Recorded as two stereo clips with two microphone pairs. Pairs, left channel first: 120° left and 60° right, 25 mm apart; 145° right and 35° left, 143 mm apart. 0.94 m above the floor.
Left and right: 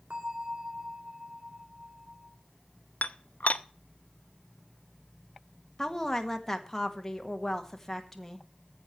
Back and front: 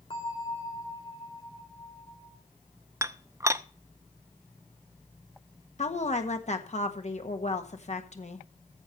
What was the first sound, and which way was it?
A bell, 95° right.